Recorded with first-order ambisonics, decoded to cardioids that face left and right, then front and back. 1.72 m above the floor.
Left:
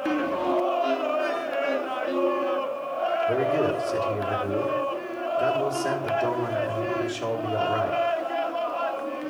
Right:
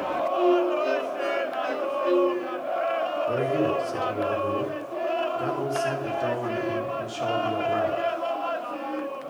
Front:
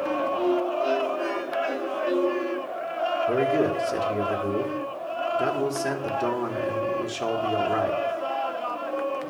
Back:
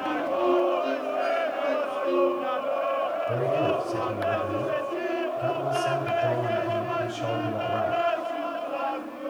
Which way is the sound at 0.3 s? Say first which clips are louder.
Right 4 dB, back 1 dB; 60° right.